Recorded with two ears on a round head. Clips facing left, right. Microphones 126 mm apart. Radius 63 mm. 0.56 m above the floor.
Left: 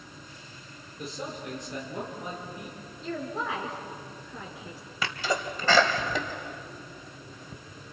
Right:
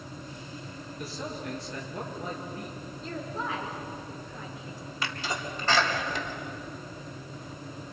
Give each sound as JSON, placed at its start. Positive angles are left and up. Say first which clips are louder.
{"t": 1.0, "sound": "a man speaking", "louder": "left 1 dB", "side_deg": 20, "distance_m": 7.5}
{"t": 3.0, "sound": "a woman speaking", "louder": "left 3 dB", "side_deg": 60, "distance_m": 8.0}
{"t": 5.0, "sound": "a sneeze", "louder": "left 5 dB", "side_deg": 70, "distance_m": 3.5}